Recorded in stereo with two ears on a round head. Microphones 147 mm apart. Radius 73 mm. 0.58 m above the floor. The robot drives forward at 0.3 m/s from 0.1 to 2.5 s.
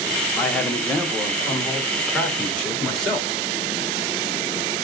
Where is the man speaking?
10° left (ahead or behind), 0.9 m; by 3.3 s 5° left (ahead or behind), 1.5 m.